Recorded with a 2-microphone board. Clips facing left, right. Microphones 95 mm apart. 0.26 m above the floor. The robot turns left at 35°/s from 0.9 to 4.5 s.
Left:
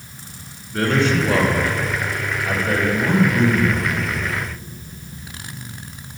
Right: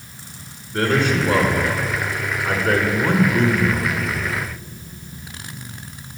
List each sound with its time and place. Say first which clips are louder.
0.7 s a man speaking: even; 5° right, 2.5 m; by 4.3 s 125° right, 2.5 m